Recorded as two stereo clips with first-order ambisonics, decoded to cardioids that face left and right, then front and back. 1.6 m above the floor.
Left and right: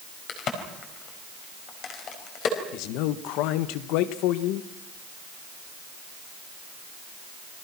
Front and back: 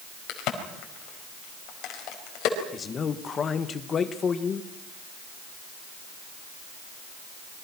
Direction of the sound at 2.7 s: 65° left.